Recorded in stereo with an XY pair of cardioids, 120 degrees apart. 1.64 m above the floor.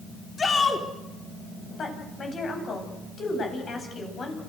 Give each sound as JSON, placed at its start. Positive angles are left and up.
{"t": 0.4, "sound": "a shout", "azimuth_deg": 30, "distance_m": 4.0}
{"t": 1.8, "sound": "a woman speaking", "azimuth_deg": 40, "distance_m": 9.5}